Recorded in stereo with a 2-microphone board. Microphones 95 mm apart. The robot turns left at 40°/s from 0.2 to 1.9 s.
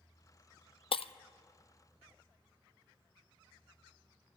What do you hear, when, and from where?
0.9 s breaking glass: 75° left (ahead or behind), 0.6 m; by 1.1 s 80° left, 0.6 m